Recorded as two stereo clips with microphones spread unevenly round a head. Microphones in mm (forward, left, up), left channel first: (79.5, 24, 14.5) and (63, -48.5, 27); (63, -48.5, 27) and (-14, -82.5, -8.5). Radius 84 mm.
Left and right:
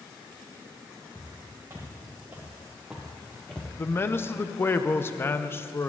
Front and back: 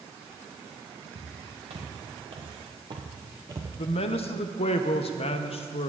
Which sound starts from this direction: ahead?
A man speaking, at 3.8 s.